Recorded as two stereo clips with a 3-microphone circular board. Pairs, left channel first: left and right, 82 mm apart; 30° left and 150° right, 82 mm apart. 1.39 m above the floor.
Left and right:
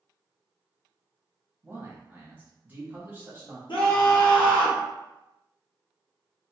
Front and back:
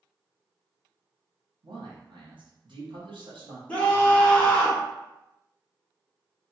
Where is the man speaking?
160° right, 1.2 m.